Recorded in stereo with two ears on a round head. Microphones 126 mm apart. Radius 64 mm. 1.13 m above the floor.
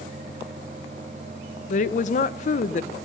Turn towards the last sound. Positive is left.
turn(degrees=55)  # may be behind; listen again after turning